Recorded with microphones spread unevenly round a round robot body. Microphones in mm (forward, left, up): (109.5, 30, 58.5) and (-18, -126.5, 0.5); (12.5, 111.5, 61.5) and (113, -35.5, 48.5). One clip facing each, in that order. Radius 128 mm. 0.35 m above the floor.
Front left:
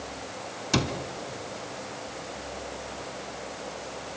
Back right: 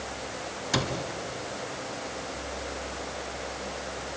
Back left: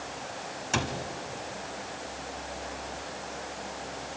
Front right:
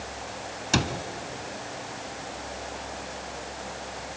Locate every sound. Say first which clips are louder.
0.7 s a cupboard door: front left 3 dB, front right 5 dB; 5° right, 1.6 m